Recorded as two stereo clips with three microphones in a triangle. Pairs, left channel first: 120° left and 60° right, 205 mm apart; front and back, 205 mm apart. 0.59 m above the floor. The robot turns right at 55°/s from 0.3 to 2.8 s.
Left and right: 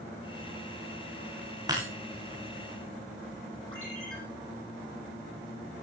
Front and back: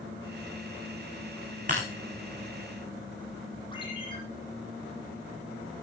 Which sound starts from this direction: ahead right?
A ringtone, at 3.7 s.